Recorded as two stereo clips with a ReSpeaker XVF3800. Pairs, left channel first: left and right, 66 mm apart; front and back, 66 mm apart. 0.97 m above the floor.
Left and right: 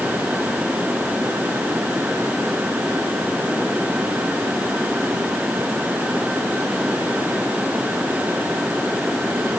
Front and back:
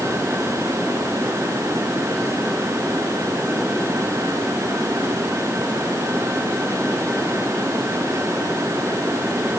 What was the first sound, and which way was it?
Only background noise.